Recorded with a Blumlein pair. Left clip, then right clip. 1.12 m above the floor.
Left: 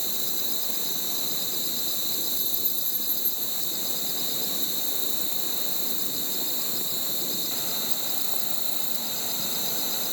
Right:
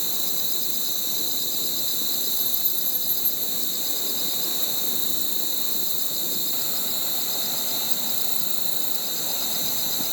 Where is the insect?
5° right.